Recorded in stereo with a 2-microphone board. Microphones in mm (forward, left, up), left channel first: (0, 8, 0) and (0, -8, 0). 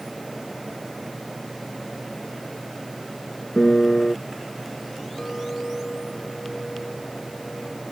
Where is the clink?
45° left (ahead or behind).